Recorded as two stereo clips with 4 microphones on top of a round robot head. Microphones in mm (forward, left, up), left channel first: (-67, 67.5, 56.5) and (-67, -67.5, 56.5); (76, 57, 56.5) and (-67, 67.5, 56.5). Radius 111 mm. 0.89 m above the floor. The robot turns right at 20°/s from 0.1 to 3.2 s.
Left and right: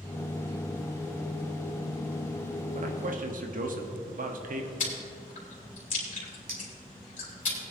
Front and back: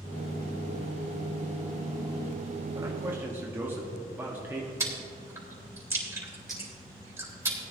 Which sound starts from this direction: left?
Chewing, at 4.8 s.